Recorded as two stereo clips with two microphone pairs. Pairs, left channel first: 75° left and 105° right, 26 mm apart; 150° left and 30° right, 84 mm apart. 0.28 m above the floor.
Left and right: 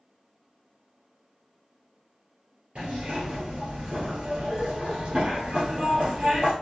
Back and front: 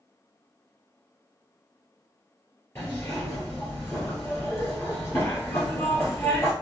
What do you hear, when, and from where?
2.8 s a zipper: 150° right, 2 m